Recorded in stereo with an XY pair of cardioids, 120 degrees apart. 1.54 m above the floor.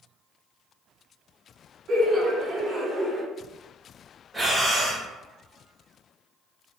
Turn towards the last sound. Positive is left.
turn(degrees=0)